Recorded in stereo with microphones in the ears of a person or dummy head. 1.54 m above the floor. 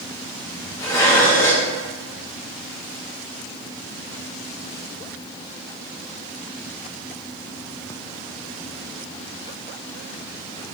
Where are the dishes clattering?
20° left (ahead or behind), 1.1 m.